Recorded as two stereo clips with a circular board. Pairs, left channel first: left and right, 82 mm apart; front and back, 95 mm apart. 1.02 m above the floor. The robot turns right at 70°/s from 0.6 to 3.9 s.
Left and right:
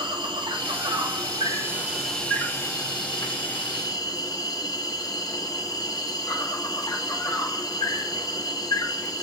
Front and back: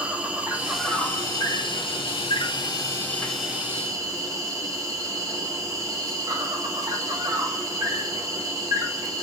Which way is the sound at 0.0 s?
105° right.